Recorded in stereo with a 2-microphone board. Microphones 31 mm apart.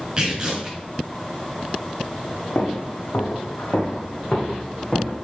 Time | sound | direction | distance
0.2 | tearing paper | 25° right (ahead or behind) | 3.5 m
2.5 | footsteps | 80° left | 2 m